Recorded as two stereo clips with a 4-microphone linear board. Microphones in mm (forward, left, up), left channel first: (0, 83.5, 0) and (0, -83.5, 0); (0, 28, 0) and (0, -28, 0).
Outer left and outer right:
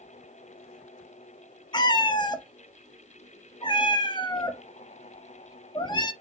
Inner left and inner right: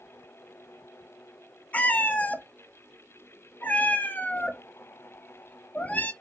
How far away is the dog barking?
No dog barking in this recording.